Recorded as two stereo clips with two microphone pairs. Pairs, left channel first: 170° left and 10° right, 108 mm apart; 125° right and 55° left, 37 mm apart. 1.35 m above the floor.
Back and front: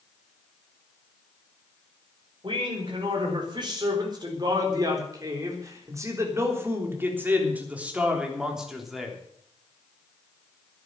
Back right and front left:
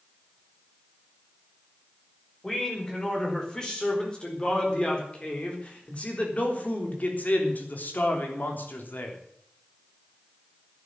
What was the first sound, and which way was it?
A man speaking, 55° right.